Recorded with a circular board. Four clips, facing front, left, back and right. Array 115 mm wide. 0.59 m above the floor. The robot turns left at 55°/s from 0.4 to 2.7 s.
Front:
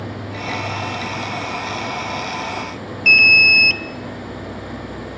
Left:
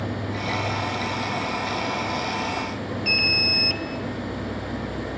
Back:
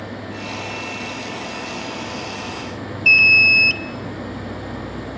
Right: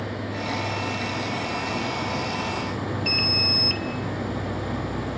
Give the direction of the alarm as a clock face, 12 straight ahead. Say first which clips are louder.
Even, front 1 dB; 12 o'clock.